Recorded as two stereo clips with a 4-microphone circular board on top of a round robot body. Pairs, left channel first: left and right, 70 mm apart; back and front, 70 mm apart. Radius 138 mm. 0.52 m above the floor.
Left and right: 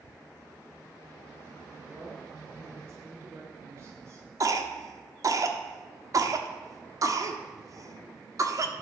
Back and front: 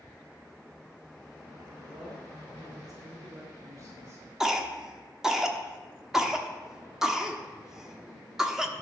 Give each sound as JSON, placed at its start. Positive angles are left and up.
{"t": 1.8, "sound": "a woman speaking", "azimuth_deg": -30, "distance_m": 2.5}
{"t": 4.4, "sound": "a cough", "azimuth_deg": -85, "distance_m": 1.2}